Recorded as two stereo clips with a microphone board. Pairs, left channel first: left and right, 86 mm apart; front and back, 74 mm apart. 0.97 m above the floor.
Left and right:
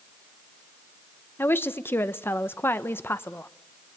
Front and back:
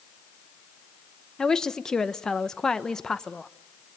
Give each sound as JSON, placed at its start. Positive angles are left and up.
{"t": 1.4, "sound": "a woman speaking", "azimuth_deg": 70, "distance_m": 0.8}